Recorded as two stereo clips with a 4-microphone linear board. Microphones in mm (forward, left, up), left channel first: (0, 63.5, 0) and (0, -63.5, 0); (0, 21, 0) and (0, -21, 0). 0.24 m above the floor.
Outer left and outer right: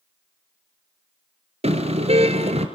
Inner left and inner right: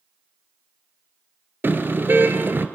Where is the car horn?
55° right (ahead or behind), 2.5 m.